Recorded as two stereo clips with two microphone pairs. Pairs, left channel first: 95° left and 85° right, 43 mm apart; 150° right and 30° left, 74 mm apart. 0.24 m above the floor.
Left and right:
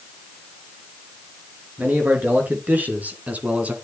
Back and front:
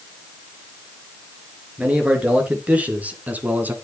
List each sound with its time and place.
1.8 s a man speaking: 45° right, 4.5 m; by 3.8 s 35° right, 2.5 m